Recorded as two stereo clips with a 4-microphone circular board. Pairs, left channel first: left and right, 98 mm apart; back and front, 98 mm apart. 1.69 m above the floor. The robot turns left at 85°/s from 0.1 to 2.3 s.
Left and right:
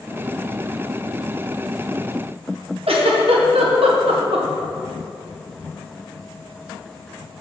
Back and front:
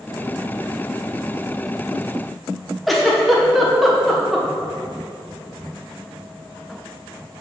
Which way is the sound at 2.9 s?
90° right.